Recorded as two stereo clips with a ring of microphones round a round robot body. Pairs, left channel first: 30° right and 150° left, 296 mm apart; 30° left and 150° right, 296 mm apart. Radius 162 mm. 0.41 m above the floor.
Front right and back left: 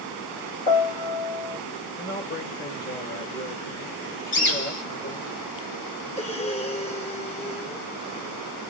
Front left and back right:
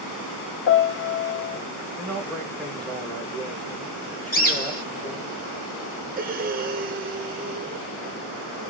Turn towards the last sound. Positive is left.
turn(degrees=-95)